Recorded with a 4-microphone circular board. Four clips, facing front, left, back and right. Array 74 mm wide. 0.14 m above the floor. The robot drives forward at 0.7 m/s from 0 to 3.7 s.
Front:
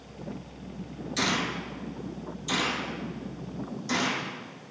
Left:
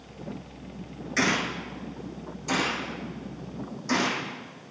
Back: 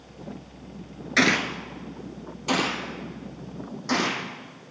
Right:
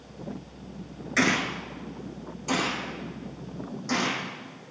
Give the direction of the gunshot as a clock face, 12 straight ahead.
6 o'clock.